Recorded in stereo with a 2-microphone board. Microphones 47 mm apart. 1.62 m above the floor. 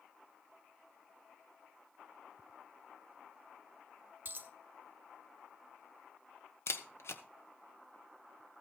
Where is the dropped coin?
40° right (ahead or behind), 1.5 m.